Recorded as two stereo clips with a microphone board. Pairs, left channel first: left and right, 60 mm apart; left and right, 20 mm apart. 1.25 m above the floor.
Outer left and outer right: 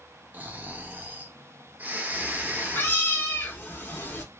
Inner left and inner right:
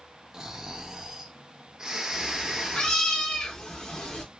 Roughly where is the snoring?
Right.